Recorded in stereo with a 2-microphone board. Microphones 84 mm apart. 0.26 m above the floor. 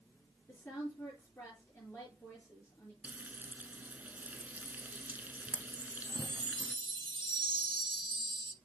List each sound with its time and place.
0.5 s a woman speaking: 25° left (ahead or behind), 4 m
3.0 s frying: 20° right (ahead or behind), 0.7 m
5.8 s a chime: 75° right (ahead or behind), 0.7 m